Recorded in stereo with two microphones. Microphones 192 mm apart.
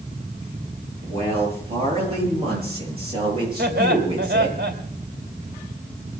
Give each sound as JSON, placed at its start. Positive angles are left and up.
{"t": 1.0, "sound": "a man speaking", "side_deg": -35, "distance_m": 9.5}
{"t": 3.6, "sound": "laughter", "side_deg": -65, "distance_m": 3.0}